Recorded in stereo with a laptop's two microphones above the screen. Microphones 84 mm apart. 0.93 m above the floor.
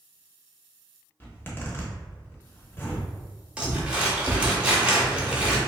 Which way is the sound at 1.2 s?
25° left (ahead or behind).